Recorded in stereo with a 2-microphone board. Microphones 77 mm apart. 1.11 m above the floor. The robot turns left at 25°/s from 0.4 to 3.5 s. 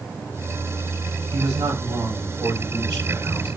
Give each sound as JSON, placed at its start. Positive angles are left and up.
{"t": 1.3, "sound": "a man speaking", "azimuth_deg": -85, "distance_m": 6.0}